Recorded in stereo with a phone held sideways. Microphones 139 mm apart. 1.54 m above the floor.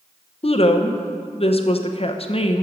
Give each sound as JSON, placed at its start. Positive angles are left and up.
{"t": 0.4, "sound": "a woman speaking", "side_deg": 45, "distance_m": 0.8}